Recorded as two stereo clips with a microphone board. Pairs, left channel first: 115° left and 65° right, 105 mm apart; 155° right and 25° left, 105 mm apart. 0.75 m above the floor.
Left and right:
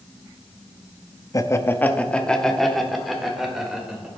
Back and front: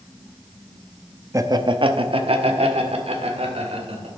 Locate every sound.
1.3 s laughter: 70° left, 0.7 m; by 4.1 s 15° left, 2.5 m